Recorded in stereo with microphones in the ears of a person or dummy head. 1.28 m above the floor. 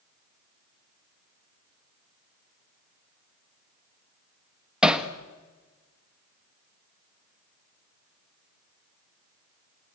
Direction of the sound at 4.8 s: 5° right (ahead or behind).